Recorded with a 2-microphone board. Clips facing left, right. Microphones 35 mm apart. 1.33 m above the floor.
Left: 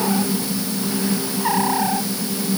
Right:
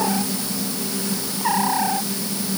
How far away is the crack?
I don't hear a crack.